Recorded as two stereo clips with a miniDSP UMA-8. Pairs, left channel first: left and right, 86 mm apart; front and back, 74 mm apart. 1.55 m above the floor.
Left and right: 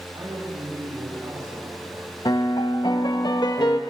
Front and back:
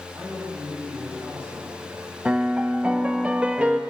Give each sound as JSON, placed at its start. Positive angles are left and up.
{"t": 0.1, "sound": "a man speaking", "azimuth_deg": -125, "distance_m": 9.0}
{"t": 2.2, "sound": "a piano", "azimuth_deg": 110, "distance_m": 1.2}